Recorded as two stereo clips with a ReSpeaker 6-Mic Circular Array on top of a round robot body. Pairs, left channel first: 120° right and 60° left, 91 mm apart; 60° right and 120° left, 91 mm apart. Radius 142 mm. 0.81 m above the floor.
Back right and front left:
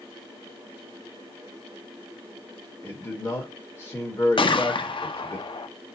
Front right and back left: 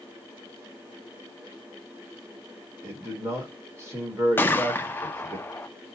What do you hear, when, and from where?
2.8 s a man speaking: 175° right, 1.2 m
4.4 s a gunshot: 125° right, 0.6 m